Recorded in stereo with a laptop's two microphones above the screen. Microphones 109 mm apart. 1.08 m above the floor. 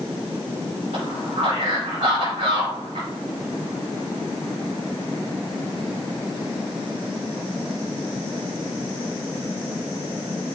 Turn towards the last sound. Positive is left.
turn(degrees=-80)